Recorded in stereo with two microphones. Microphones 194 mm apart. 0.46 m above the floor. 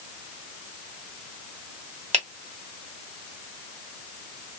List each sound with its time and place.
2.1 s a finger snap: 35° right (ahead or behind), 1.0 m